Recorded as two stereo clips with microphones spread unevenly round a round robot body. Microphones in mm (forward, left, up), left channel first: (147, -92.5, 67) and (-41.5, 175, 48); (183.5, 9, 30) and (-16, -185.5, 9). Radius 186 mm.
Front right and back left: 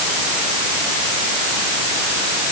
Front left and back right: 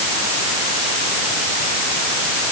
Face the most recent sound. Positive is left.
No sound to turn to.